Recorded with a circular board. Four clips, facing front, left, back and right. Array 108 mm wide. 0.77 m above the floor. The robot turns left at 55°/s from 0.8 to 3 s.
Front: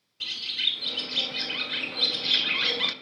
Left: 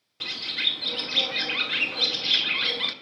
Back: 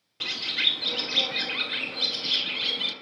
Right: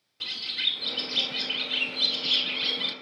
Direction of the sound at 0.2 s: 150° left.